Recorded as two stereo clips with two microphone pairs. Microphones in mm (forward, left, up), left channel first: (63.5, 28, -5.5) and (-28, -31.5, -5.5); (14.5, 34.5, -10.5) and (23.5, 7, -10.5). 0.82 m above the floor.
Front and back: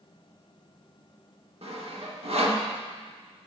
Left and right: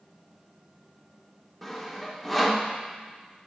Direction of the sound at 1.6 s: 170° right.